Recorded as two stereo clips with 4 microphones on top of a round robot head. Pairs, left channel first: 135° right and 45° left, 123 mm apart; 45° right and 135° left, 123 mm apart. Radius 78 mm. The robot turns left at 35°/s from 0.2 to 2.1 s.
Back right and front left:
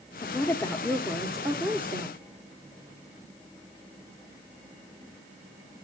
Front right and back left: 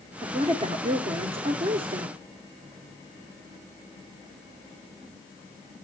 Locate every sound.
0.2 s a woman speaking: 170° left, 1.1 m; by 2.2 s 105° left, 1.1 m